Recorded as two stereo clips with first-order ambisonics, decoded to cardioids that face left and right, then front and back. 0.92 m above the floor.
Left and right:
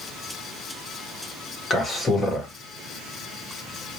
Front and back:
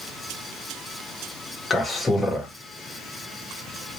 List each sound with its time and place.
1.7 s a man speaking: 50° left, 0.7 m